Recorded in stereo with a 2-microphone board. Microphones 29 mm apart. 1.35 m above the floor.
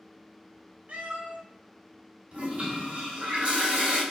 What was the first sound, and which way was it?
A cat meowing, 60° right (ahead or behind).